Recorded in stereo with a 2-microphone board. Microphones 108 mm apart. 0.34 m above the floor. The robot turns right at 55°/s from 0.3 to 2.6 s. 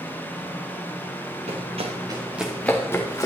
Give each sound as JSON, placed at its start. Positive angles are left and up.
{"t": 1.5, "sound": "running footsteps", "side_deg": -80, "distance_m": 2.5}